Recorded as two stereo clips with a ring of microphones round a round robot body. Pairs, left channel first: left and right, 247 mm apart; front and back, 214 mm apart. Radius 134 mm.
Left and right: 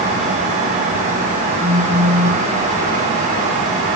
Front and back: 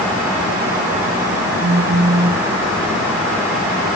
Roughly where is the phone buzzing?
Behind.